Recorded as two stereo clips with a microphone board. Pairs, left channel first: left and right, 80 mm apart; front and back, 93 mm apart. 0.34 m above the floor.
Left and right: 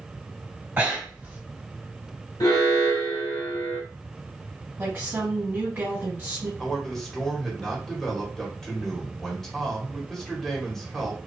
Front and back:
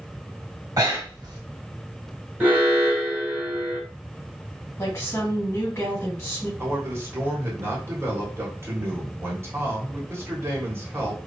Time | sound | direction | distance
0.8 | breathing | 155° right | 1.0 m
2.4 | an alarm | 115° left | 1.1 m
4.8 | a woman speaking | 35° right | 1.5 m
6.6 | a man speaking | 170° left | 1.0 m